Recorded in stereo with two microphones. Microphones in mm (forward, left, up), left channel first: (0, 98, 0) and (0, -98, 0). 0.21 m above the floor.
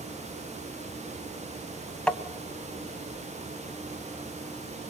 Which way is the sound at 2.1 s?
5° left (ahead or behind).